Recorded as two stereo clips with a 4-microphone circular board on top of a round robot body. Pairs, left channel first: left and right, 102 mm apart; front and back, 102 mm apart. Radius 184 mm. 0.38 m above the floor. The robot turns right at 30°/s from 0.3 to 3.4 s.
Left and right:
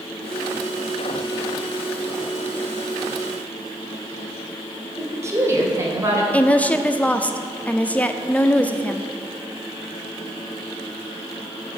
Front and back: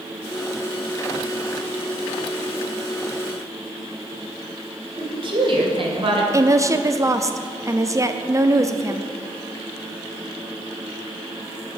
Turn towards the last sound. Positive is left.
turn(degrees=155)